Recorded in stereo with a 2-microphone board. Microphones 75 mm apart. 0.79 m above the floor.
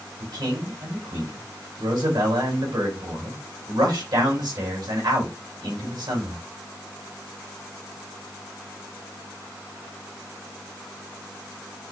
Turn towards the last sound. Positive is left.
turn(degrees=-70)  # may be behind; listen again after turning